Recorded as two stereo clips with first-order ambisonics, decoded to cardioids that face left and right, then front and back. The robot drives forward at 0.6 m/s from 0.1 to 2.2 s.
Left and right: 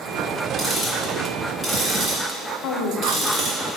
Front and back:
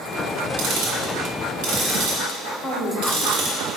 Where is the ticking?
175° left, 2.0 m; by 3.6 s straight behind, 3 m.